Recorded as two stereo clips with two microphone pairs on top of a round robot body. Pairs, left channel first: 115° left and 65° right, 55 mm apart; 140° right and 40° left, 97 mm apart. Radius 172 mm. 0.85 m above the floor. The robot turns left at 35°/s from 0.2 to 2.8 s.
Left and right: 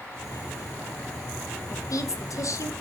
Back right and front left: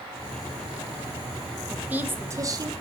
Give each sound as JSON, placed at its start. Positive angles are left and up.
{"t": 1.7, "sound": "a woman speaking", "azimuth_deg": 120, "distance_m": 1.7}